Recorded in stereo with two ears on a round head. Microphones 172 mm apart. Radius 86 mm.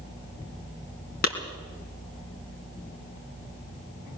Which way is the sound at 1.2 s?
50° left (ahead or behind).